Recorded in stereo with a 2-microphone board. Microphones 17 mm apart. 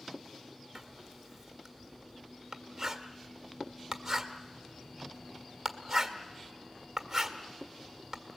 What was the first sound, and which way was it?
Writing, 10° right (ahead or behind).